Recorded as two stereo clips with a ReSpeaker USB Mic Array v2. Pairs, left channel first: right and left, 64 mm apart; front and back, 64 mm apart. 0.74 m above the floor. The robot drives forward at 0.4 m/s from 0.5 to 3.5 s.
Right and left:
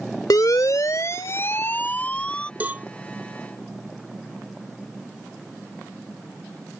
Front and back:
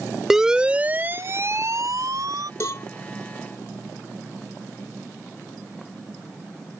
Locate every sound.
0.3 s a siren: 95° right; by 2.5 s 165° right
2.6 s a cowbell: 30° left